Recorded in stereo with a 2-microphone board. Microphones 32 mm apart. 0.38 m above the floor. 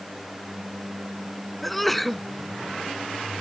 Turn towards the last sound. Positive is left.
turn(degrees=5)  # may be behind; listen again after turning